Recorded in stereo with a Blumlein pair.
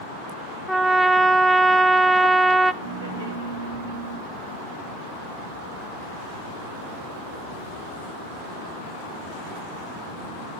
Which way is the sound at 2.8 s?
70° right.